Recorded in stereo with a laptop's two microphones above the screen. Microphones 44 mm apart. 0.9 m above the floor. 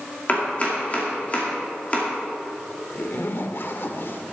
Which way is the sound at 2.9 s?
55° left (ahead or behind).